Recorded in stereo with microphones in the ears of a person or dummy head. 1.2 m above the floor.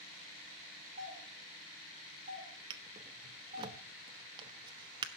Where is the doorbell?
35° right (ahead or behind), 3.5 m.